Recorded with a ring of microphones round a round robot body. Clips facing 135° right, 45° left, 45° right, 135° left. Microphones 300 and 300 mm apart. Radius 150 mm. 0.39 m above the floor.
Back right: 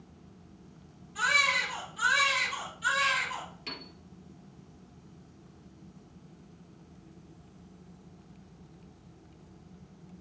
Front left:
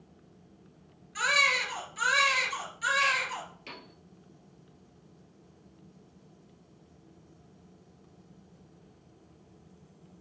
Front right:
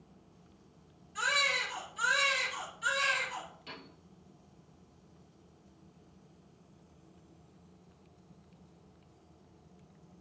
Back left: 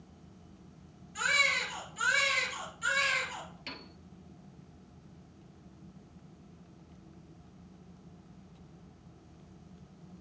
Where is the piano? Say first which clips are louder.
Back right 3 dB, back left 3 dB; 145° left, 2 m.